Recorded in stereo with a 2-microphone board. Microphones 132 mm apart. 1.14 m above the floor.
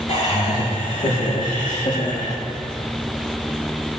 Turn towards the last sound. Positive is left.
turn(degrees=65)  # may be behind; listen again after turning